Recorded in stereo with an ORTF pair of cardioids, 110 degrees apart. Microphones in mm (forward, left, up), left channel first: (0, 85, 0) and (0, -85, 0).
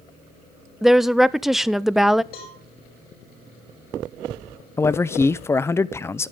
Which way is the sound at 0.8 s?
Straight ahead.